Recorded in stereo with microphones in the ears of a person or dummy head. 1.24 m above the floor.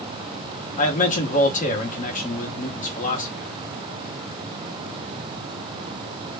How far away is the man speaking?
About 0.9 m.